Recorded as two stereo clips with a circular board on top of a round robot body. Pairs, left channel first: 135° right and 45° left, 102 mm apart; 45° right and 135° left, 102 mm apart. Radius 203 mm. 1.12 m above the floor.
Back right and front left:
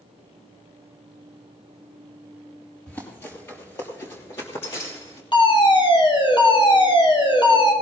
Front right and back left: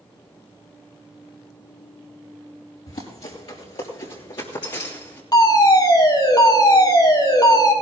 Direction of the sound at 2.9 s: 65° right.